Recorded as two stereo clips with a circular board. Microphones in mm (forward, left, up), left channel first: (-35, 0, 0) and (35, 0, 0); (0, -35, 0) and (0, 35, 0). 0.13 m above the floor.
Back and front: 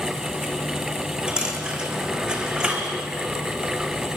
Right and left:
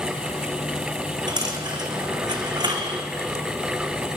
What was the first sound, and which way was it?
A dropped coin, 75° left.